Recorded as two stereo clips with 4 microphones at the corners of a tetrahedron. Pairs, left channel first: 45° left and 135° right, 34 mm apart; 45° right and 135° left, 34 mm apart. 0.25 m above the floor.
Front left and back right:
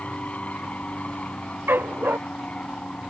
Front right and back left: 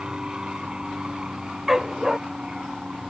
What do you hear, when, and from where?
0.0 s an aircraft: 80° left; by 3.1 s 85° left
1.7 s a dog barking: 145° right